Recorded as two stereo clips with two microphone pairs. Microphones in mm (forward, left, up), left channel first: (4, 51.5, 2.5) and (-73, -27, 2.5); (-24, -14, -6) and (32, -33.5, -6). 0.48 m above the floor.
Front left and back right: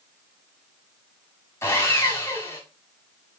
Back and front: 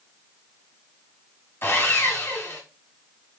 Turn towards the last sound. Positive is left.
turn(degrees=110)